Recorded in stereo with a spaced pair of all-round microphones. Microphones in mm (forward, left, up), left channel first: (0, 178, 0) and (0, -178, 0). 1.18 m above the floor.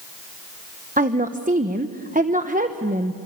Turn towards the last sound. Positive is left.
turn(degrees=-20)  # may be behind; listen again after turning